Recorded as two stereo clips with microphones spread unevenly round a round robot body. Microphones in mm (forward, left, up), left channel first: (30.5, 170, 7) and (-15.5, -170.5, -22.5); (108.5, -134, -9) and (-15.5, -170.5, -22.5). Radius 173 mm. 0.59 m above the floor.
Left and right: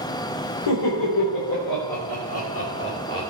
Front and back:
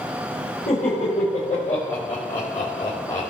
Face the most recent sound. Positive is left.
turn(degrees=15)